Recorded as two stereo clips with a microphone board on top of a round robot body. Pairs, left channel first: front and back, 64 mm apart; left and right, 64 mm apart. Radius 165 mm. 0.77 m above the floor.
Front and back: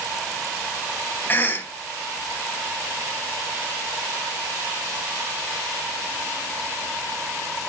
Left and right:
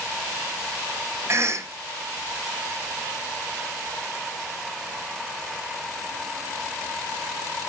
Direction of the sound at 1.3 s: 55° right.